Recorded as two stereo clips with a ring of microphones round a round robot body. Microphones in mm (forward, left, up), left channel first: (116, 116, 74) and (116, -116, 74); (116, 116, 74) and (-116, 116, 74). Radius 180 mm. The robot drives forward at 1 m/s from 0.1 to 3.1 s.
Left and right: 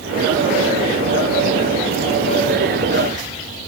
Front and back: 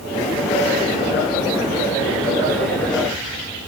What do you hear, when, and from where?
Only background noise.